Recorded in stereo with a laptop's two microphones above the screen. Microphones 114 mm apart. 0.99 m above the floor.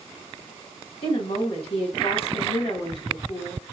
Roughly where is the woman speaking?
Left.